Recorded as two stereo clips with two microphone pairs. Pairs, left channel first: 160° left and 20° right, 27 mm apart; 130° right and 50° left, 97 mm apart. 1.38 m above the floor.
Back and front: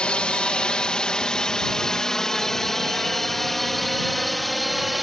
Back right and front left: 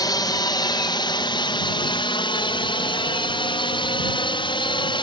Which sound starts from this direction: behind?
A drone, at 0.0 s.